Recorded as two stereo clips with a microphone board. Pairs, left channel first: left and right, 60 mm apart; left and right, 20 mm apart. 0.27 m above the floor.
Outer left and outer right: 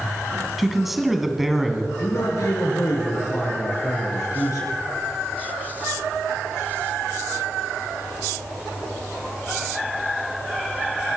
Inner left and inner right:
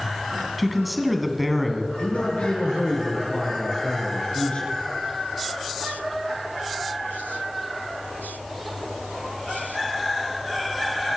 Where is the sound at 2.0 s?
75° left (ahead or behind), 5 m.